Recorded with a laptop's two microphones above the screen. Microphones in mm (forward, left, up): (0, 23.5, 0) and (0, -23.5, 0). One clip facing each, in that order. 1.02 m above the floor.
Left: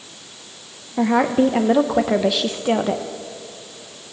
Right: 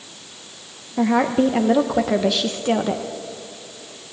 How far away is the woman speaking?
About 0.6 m.